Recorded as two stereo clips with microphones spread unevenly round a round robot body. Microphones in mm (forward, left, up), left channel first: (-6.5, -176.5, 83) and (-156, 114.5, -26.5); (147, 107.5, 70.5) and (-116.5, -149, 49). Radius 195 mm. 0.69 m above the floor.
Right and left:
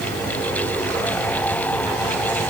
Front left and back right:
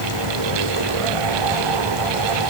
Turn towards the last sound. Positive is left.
No sound to turn to.